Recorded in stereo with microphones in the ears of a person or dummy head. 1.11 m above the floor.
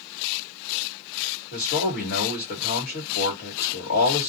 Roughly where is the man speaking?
Left.